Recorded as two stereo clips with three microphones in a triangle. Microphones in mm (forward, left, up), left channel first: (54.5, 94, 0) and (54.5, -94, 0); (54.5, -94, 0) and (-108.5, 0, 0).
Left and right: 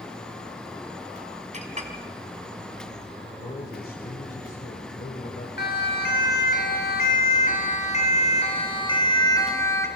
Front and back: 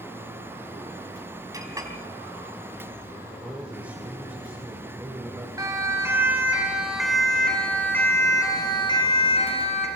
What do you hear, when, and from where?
1.5 s a clink: 140° right, 2 m
3.4 s a man speaking: 70° left, 2 m
5.6 s a siren: 80° left, 3.5 m; by 9.9 s 15° left, 3 m